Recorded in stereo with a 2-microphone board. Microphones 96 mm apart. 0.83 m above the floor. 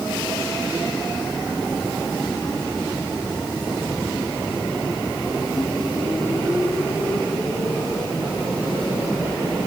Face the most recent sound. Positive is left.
No sound to turn to.